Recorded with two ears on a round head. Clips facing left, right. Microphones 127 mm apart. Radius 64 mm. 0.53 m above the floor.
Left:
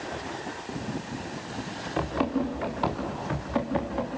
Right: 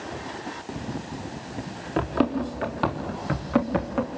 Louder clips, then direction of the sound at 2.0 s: Right 3 dB; 55° right (ahead or behind).